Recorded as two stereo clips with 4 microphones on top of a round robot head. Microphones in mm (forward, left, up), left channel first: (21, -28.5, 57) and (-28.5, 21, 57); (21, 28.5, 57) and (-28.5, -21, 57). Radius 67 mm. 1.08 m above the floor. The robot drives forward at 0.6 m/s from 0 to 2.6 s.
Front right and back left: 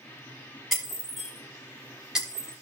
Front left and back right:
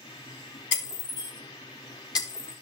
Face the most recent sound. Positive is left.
turn(degrees=55)